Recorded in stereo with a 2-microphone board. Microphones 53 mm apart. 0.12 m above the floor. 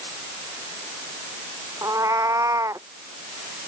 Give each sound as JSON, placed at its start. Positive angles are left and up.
{"t": 1.8, "sound": "a cat meowing", "side_deg": -80}